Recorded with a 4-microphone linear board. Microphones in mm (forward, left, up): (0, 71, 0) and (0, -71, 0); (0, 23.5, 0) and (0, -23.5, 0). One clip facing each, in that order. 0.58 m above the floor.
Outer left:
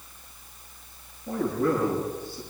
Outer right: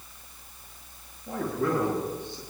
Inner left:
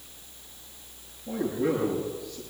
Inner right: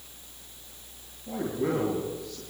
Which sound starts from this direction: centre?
A man speaking, at 1.3 s.